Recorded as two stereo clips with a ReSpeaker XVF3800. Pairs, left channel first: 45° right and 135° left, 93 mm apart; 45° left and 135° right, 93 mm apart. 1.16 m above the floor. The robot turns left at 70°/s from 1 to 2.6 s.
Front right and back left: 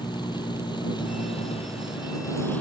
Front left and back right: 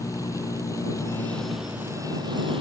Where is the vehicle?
10° right; by 2.6 s 120° right.